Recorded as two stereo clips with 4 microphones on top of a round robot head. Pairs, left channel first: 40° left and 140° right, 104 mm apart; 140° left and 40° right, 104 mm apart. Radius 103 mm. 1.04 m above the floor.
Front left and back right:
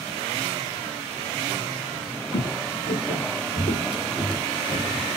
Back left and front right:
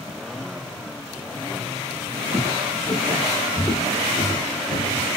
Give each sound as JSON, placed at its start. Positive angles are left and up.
{"t": 2.3, "sound": "footsteps", "azimuth_deg": 45, "distance_m": 1.4}